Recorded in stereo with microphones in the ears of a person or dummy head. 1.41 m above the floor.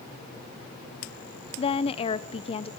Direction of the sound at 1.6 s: 30° left (ahead or behind).